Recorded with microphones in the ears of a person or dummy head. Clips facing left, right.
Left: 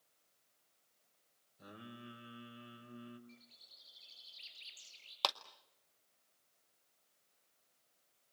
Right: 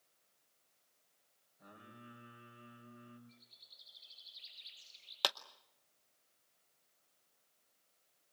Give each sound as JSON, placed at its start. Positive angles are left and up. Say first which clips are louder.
{"t": 1.6, "sound": "singing", "louder": "left 5 dB", "side_deg": 45, "distance_m": 6.0}
{"t": 3.3, "sound": "a bird", "louder": "left 5 dB", "side_deg": 45, "distance_m": 5.5}
{"t": 5.2, "sound": "a clap", "louder": "even", "side_deg": -15, "distance_m": 0.7}